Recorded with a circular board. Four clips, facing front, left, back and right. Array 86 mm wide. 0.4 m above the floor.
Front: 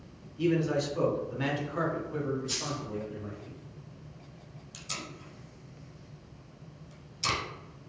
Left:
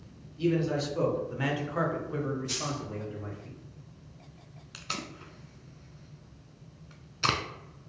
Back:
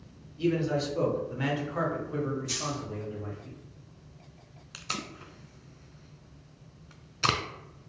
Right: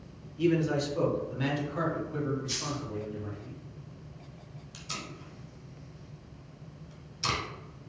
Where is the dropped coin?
135° left, 1.6 m.